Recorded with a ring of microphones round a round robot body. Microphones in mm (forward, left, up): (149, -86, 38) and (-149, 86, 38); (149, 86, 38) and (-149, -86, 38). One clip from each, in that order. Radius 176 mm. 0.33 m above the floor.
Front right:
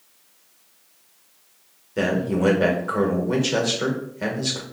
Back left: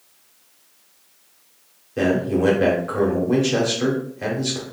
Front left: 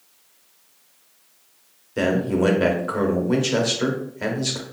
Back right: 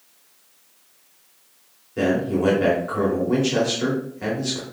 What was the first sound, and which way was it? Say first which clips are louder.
A man speaking: back left 3 dB, front left 1 dB; 35° left.